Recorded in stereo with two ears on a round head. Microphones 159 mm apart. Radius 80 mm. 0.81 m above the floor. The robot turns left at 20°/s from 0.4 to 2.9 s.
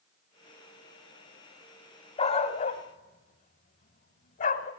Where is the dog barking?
35° left (ahead or behind), 1.3 m; by 4.7 s 50° left (ahead or behind), 1.3 m.